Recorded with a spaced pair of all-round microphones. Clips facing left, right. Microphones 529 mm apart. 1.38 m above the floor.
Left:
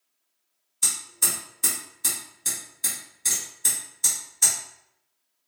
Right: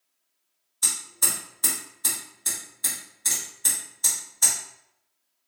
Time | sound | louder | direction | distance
0.8 | hammering | even | 45° left (ahead or behind) | 2.5 m